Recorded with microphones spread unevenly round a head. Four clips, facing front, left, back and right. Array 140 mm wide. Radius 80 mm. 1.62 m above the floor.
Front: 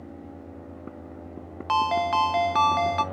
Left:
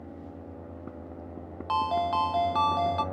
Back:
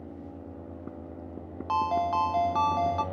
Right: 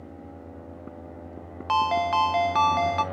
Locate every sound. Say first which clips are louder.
1.7 s a ringtone: right 4 dB, front 3 dB; 5° left, 0.5 m